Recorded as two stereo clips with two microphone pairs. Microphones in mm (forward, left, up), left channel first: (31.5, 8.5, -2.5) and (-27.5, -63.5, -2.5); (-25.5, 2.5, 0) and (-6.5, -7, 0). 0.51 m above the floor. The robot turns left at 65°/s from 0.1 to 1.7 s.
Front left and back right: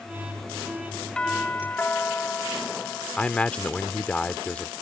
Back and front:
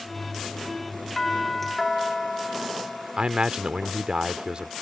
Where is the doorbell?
115° left; by 3.2 s 80° left.